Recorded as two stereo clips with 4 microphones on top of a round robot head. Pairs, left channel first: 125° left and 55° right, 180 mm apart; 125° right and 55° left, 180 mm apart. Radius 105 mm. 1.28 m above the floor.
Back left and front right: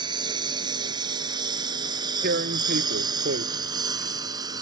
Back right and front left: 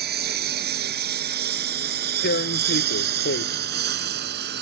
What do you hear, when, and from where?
0.0 s a lawn mower: 15° left; by 4.6 s 20° left
2.2 s tearing paper: 90° right